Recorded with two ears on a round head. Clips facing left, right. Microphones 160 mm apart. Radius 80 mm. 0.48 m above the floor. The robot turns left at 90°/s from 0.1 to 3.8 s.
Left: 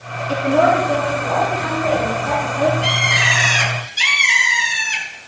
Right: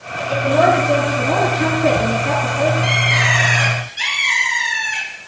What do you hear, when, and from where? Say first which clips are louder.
0.3 s a woman speaking: even; 20° left, 8 m; by 2.7 s 160° left, 8 m
2.8 s a bird: right 1 dB; 145° left, 7 m; by 5.0 s 60° left, 7 m